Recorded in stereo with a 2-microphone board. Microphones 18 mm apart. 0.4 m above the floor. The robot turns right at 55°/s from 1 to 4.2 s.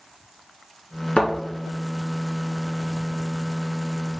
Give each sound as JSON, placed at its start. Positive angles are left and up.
{"t": 1.2, "sound": "a thud", "side_deg": 60, "distance_m": 1.6}